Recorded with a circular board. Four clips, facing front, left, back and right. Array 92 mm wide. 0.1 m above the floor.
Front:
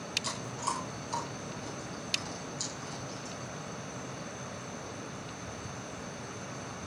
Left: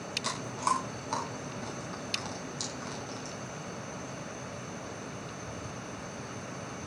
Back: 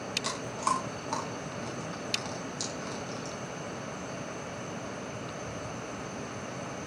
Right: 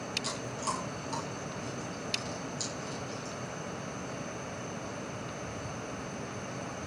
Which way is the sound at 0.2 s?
135° left.